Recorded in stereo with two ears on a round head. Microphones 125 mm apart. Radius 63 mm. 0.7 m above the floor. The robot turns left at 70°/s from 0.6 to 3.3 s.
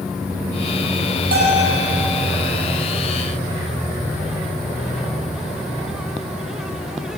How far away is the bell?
About 9 m.